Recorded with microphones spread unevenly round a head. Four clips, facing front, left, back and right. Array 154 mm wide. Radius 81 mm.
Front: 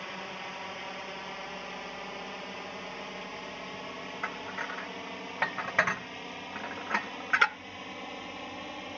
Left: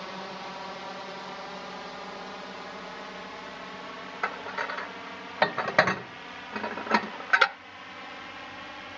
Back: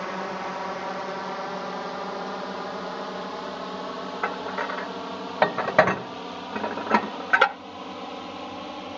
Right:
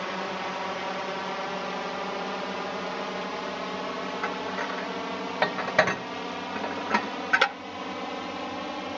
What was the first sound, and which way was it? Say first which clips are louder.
A drone: right 7 dB, back 10 dB; 145° right.